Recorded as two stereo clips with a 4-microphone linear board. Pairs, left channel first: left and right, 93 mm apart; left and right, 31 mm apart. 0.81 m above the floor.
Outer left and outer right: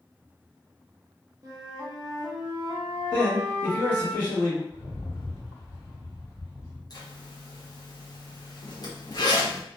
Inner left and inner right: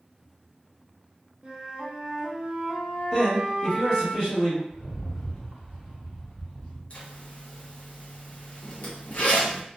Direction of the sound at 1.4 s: 35° right (ahead or behind).